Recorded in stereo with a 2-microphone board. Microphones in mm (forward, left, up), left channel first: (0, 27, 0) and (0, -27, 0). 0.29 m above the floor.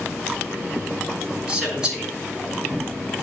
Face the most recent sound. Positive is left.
turn(degrees=-15)  # may be behind; listen again after turning